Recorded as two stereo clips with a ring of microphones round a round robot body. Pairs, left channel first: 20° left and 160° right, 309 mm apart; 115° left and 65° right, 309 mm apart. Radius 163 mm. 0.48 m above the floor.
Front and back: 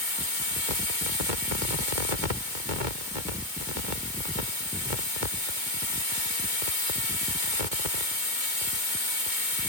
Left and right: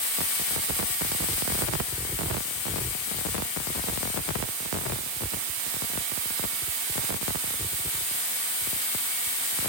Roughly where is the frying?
I don't hear frying.